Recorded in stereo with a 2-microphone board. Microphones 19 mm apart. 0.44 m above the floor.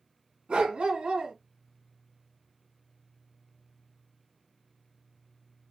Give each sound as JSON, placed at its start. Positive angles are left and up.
{"t": 0.5, "sound": "a dog barking", "side_deg": -85, "distance_m": 1.7}